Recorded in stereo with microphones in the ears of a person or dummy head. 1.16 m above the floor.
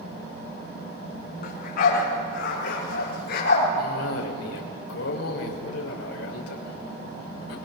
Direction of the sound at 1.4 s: 60° left (ahead or behind).